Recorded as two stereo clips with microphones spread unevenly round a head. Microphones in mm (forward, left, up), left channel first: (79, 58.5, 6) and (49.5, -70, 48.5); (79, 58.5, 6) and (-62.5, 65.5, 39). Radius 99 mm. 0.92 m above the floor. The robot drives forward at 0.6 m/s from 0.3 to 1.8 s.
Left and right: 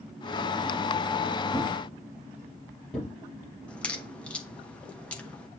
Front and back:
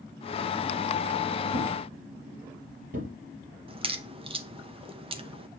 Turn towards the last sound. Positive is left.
turn(degrees=130)